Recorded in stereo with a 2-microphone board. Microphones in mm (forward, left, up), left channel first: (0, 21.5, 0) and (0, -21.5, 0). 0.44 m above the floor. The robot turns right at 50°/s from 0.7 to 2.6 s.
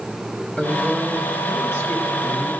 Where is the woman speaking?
35° left, 2.5 m; by 2.5 s 125° left, 2.5 m.